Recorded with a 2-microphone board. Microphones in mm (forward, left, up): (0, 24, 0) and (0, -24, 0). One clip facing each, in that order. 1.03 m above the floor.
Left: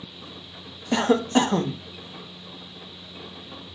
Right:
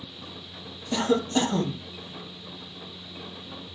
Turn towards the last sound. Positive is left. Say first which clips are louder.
# left 4 dB
turn(degrees=50)  # may be behind; listen again after turning